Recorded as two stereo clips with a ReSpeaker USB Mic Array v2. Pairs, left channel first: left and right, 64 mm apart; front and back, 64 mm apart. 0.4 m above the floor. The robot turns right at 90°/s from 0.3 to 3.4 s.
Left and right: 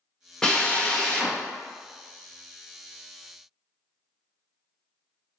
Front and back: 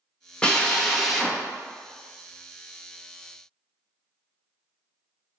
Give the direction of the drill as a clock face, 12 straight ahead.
11 o'clock.